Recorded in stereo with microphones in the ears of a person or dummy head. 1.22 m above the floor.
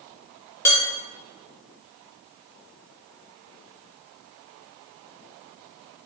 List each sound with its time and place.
0.7 s dishes clattering: 15° left (ahead or behind), 0.9 m